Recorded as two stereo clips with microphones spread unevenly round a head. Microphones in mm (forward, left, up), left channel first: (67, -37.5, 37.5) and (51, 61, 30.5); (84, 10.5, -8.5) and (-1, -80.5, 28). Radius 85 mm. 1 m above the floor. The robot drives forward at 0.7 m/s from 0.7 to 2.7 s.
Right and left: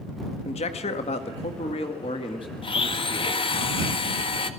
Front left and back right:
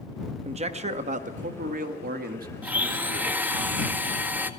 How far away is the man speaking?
About 1.8 m.